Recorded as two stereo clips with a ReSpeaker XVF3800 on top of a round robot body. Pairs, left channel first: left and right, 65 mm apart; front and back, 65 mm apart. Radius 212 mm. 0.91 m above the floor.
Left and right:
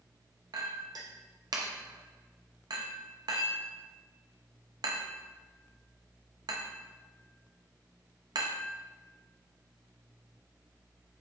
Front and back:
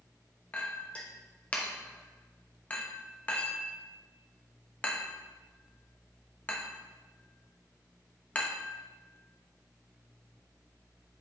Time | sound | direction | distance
0.5 | a clink | 70° right | 0.5 m